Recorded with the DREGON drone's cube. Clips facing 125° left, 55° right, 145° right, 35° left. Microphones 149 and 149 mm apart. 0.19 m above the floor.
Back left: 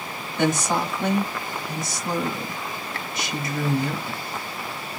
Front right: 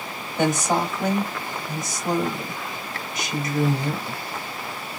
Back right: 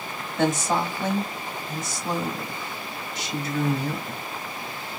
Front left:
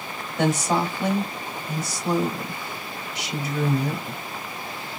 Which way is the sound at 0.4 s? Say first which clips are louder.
Front right 1 dB, front left 1 dB; 40° right.